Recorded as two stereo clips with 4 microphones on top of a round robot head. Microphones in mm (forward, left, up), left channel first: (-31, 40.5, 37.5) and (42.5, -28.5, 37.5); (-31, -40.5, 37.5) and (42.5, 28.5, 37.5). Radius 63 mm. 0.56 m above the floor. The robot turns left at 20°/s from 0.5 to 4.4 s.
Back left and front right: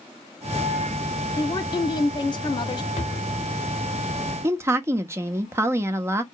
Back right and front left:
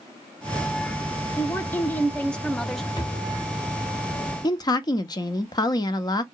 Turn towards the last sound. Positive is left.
turn(degrees=-100)